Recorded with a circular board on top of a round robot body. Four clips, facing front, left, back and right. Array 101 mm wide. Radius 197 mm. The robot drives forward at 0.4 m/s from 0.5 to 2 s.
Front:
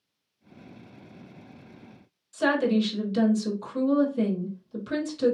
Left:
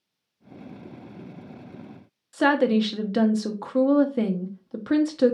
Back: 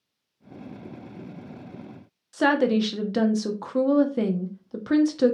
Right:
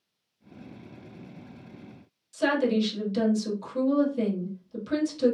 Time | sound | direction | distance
2.3 | a woman speaking | 125° left | 0.7 m